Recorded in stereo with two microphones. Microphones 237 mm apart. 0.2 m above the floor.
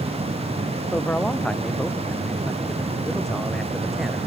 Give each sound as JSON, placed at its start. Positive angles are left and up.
{"t": 0.9, "sound": "a man speaking", "side_deg": 5}